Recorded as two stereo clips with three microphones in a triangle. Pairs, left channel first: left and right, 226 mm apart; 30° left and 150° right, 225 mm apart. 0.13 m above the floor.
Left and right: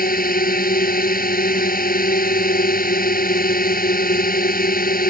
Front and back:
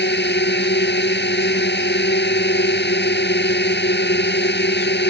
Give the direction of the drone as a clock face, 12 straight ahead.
10 o'clock.